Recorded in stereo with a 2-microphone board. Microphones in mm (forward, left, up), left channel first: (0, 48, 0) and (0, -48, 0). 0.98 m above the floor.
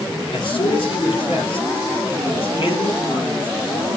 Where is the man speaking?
65° left (ahead or behind), 5 m.